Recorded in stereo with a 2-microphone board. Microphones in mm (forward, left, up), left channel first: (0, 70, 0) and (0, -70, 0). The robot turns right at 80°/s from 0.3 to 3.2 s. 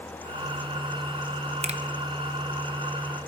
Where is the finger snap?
50° right (ahead or behind), 0.7 m.